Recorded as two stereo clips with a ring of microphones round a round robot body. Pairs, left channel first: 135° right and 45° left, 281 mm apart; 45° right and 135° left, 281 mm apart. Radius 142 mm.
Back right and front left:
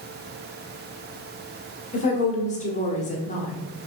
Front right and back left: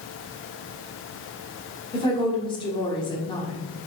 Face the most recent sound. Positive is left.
turn(degrees=-100)